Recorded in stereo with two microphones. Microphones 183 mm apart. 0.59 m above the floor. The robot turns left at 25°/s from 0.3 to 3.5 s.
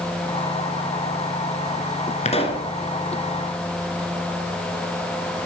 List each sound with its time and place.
2.2 s a pop: 40° left (ahead or behind), 1.6 m; by 2.7 s 25° left (ahead or behind), 1.6 m